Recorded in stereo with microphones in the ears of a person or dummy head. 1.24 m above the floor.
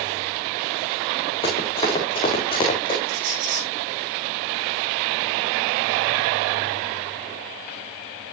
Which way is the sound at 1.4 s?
25° left (ahead or behind).